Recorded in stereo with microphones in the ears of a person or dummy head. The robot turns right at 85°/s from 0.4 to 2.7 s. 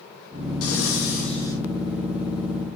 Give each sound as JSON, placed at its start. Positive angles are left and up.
{"t": 0.6, "sound": "breathing", "azimuth_deg": 90, "distance_m": 2.0}